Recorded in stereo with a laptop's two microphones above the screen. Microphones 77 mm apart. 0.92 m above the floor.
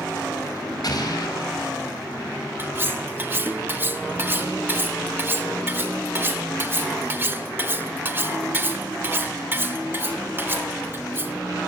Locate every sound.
0.8 s an explosion: 55° left (ahead or behind), 3 m
2.6 s cutlery clinking: 30° right (ahead or behind), 0.6 m